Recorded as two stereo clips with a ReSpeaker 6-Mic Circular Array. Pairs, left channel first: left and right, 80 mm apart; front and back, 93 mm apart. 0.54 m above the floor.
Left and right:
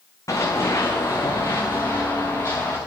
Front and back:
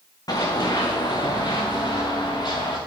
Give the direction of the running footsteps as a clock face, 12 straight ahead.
11 o'clock.